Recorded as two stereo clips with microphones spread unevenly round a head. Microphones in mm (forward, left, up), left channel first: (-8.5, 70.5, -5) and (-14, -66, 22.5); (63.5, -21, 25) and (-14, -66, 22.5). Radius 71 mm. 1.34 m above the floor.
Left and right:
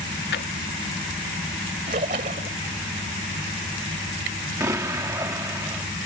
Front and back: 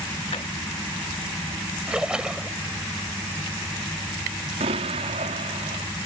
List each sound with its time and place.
0.3 s a drawer: 80° left
1.9 s a splash: 70° right
4.6 s an explosion: 160° right